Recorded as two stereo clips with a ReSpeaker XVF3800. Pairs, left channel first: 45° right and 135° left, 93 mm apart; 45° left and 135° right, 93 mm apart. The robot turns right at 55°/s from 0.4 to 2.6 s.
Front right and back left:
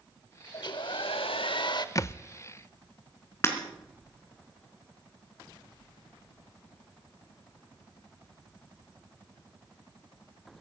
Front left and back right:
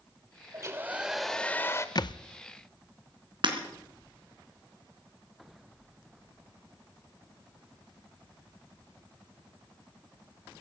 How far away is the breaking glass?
About 3 m.